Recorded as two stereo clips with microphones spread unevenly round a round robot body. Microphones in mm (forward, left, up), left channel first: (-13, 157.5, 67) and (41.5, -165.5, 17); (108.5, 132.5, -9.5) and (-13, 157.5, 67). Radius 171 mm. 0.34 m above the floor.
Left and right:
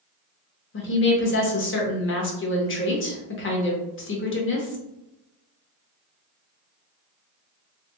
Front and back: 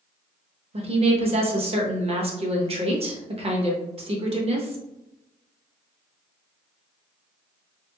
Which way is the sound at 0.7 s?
110° left.